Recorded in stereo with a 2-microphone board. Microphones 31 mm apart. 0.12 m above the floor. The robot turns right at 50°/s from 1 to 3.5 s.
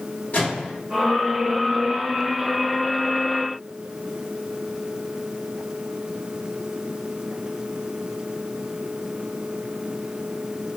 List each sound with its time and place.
0.3 s a microwave: 40° left (ahead or behind), 1.7 m